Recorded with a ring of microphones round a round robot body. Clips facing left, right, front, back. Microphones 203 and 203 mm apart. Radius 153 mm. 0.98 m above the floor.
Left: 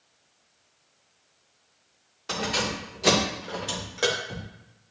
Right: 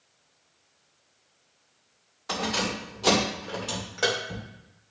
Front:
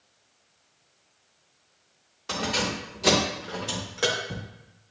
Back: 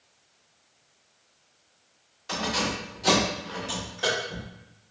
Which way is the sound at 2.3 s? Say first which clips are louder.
Even, even; 30° left.